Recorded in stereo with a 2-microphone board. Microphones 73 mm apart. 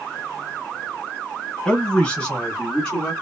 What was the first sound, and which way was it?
A man speaking, 10° left (ahead or behind).